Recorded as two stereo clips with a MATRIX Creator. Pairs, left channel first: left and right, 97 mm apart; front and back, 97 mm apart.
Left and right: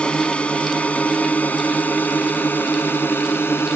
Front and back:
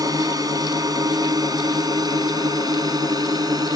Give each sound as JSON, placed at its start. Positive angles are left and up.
{"t": 0.0, "sound": "a drone", "azimuth_deg": 165}